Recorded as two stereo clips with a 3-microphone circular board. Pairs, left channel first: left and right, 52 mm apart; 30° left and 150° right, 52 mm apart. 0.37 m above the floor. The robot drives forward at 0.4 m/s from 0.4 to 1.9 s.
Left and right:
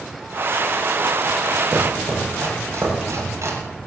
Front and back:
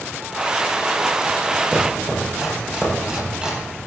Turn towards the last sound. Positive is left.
turn(degrees=-75)